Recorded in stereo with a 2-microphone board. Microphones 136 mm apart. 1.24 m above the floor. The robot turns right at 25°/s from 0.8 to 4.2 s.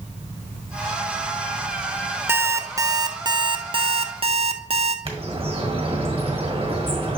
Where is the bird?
45° right (ahead or behind), 1.4 m.